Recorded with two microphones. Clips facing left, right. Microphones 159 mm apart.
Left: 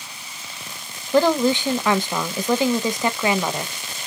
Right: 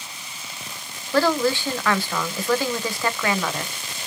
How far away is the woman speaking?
About 0.5 m.